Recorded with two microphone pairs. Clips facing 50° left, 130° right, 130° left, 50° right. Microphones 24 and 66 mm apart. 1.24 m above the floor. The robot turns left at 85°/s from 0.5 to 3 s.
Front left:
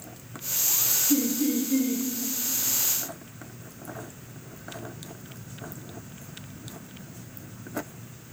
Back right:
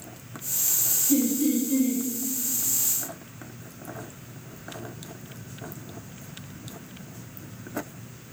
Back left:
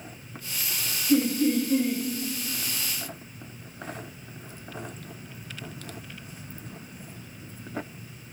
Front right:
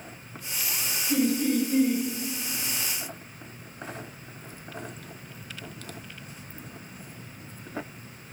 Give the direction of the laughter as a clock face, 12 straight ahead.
6 o'clock.